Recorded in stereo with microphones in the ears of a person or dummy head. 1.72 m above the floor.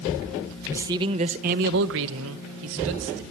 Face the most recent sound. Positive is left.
turn(degrees=-65)  # may be behind; listen again after turning